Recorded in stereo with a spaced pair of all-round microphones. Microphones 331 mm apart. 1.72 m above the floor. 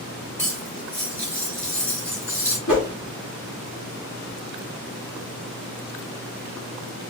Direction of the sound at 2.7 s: 70° left (ahead or behind).